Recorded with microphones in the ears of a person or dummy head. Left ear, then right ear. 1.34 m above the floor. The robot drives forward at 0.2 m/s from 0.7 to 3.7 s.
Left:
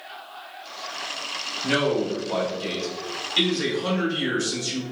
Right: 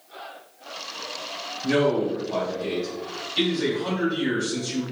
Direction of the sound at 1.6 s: 65° left (ahead or behind).